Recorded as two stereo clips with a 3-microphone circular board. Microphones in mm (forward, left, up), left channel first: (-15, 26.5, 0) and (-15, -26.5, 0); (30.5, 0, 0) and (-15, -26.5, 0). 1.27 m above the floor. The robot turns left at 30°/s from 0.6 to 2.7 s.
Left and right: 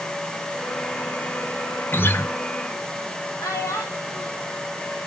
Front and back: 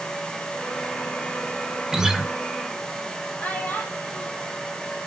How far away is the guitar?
About 0.7 m.